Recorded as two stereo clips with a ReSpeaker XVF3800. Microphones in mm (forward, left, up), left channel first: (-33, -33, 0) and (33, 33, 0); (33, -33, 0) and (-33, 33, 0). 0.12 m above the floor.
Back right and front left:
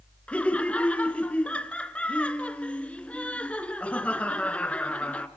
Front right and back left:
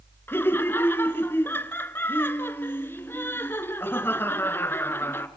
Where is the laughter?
75° right, 1.2 m.